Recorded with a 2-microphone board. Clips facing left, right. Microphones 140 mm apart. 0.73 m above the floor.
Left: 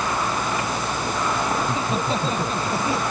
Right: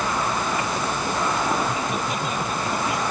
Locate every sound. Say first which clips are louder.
1.6 s laughter: left 1 dB; 30° left (ahead or behind)